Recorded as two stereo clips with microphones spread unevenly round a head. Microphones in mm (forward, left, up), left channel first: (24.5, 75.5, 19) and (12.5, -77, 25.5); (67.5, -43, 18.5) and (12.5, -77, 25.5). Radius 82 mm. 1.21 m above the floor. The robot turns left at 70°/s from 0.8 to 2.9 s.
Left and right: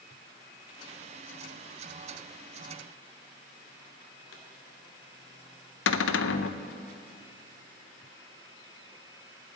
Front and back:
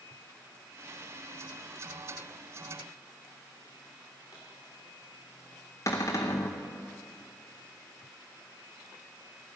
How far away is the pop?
About 2.5 m.